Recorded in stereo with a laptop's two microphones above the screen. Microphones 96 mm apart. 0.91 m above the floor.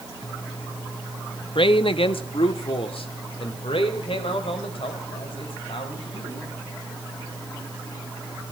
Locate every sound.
1.6 s a man speaking: 65° left (ahead or behind), 0.9 m; by 6.5 s 75° left (ahead or behind), 6 m